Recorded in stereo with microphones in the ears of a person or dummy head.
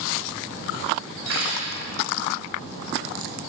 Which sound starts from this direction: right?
Cutlery clinking, at 1.2 s.